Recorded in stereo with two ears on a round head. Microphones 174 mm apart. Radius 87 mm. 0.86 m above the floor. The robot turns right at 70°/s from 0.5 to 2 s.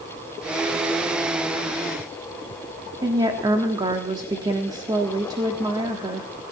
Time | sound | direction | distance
3.0 | a woman speaking | 20° right (ahead or behind) | 1.5 m